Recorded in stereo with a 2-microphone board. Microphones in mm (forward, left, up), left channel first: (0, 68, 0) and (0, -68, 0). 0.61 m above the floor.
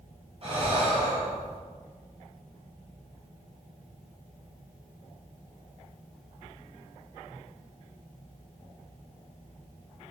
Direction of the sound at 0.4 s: 45° right (ahead or behind).